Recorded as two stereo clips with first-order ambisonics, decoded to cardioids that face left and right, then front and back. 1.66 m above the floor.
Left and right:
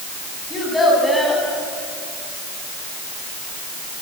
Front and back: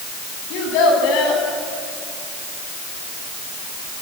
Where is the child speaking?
5° left, 7.5 m.